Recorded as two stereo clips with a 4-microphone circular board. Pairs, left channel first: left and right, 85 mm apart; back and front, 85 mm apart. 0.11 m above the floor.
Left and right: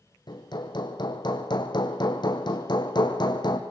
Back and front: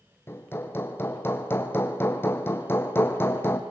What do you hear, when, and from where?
0.3 s hammering: 120° left, 2.5 m